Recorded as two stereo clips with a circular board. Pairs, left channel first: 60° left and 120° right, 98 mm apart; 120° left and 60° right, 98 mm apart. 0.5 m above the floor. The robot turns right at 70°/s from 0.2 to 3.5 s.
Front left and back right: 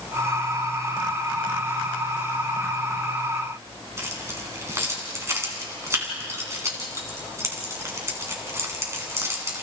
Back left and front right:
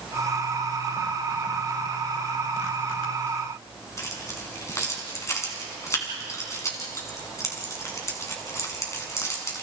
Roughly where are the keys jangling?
Behind.